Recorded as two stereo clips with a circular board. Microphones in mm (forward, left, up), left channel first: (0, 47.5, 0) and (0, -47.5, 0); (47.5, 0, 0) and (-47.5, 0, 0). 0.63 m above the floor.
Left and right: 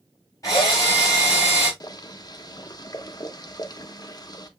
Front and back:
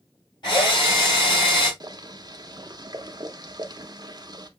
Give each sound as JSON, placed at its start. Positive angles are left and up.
{"t": 0.4, "sound": "a drill", "azimuth_deg": 35, "distance_m": 3.0}
{"t": 1.8, "sound": "boiling", "azimuth_deg": 135, "distance_m": 0.6}